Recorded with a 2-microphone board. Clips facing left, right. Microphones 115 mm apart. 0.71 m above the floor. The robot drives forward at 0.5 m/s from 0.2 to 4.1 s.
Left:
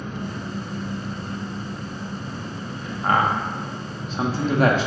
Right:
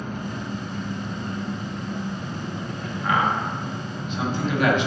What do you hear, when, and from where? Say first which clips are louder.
0.0 s an engine running: even; 55° right (ahead or behind), 1.8 m
3.0 s a man speaking: left 2 dB; 45° left (ahead or behind), 1.1 m; by 4.9 s 40° left (ahead or behind), 1.2 m